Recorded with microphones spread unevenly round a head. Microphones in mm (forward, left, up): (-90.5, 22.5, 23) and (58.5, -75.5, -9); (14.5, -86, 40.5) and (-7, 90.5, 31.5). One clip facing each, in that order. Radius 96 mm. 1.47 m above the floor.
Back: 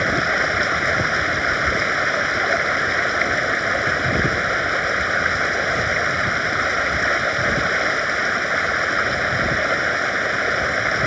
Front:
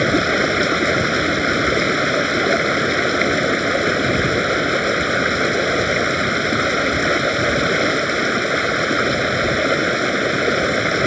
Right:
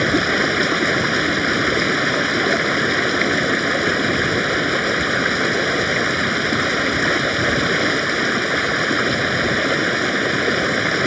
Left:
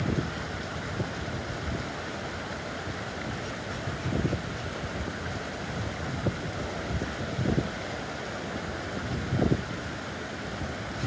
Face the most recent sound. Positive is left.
turn(degrees=-80)